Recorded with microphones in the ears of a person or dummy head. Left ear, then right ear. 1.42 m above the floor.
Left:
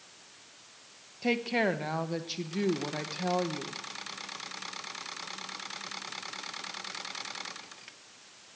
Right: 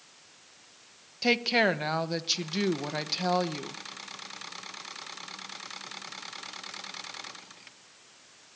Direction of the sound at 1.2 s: 35° right (ahead or behind).